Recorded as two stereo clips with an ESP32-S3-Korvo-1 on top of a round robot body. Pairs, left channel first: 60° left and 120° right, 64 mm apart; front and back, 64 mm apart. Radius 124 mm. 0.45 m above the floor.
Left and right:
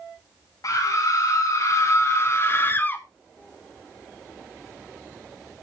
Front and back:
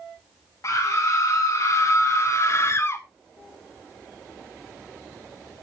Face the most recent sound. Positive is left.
turn(degrees=15)